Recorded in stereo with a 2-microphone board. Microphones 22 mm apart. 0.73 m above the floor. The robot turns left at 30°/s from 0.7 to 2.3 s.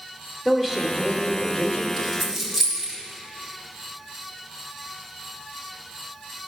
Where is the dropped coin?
20° left (ahead or behind), 3 m; by 2.9 s 10° left (ahead or behind), 3 m.